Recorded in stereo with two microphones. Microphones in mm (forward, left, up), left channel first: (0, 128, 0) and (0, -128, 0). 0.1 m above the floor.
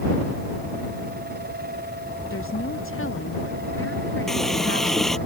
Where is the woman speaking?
55° left (ahead or behind); by 5.3 s 50° left (ahead or behind).